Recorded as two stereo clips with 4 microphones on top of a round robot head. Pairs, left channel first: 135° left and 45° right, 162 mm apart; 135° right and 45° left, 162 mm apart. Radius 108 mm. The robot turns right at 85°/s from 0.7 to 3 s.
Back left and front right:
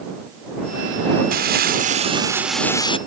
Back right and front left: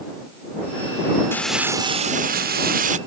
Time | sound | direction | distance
1.3 | crumpling | 60° right | ?